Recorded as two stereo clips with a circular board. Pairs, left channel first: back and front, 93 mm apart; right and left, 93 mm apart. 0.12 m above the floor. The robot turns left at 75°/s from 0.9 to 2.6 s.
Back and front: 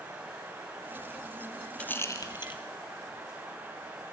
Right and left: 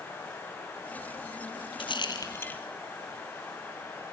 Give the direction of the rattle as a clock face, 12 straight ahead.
3 o'clock.